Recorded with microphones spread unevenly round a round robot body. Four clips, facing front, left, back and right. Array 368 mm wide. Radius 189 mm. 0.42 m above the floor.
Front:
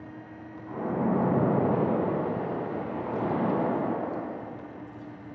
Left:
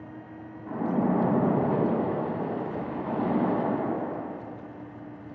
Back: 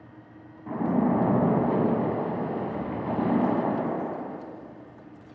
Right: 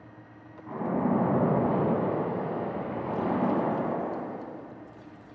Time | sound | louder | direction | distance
0.7 | a splash | left 1 dB, back 4 dB | 165° left | 1.5 m